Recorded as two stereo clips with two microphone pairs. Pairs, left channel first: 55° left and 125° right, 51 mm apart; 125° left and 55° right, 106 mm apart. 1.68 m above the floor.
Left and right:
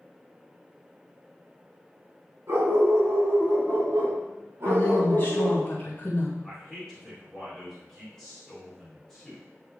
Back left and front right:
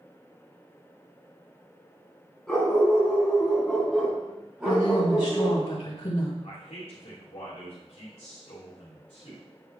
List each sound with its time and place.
2.5 s a dog barking: 150° right, 4 m; by 5.7 s 125° right, 2.5 m
4.7 s a woman speaking: 105° left, 2.5 m
6.4 s a man speaking: 140° left, 3.5 m